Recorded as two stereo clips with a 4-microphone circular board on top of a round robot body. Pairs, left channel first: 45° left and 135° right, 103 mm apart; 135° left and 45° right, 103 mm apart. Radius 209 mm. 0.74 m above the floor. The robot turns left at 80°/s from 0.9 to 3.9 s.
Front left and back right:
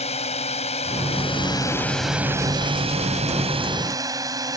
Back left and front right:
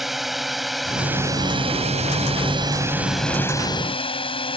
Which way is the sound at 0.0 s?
45° left.